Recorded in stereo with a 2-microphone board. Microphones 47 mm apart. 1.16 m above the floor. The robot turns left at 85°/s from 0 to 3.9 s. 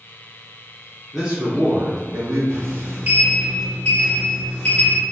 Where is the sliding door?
85° right, 1.0 m; by 5.0 s 155° left, 1.0 m.